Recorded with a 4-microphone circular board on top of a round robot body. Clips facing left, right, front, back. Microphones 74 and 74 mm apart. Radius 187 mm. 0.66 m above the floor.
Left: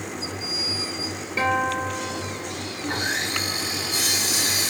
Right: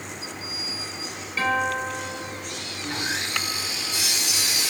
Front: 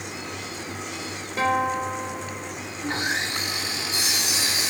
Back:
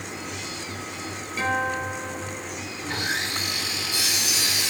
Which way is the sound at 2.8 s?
50° left.